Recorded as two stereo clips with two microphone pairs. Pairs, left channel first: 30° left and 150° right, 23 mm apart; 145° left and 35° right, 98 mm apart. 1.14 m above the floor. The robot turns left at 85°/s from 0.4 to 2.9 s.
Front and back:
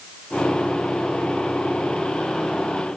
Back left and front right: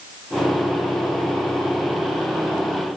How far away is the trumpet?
No trumpet in this recording.